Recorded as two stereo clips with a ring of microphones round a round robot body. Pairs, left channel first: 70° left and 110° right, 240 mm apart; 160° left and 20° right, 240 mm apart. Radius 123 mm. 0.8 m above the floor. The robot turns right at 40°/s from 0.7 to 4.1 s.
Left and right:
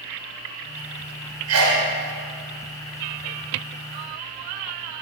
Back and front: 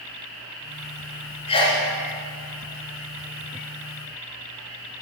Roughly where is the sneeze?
Behind right.